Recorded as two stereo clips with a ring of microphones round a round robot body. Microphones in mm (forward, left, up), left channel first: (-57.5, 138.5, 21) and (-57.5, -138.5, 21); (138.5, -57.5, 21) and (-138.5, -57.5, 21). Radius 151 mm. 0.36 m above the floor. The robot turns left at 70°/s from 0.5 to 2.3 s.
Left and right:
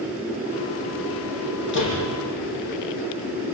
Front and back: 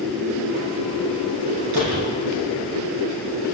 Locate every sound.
1.7 s a door slam: 140° left, 9.5 m; by 2.0 s 120° left, 9.5 m